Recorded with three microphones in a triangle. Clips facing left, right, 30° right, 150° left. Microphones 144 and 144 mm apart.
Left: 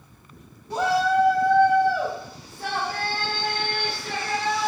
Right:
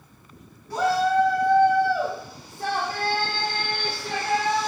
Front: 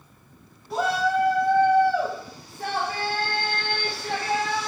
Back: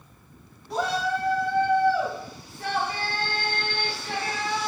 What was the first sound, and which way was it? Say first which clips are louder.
A shout: even, front 3 dB; 55° left.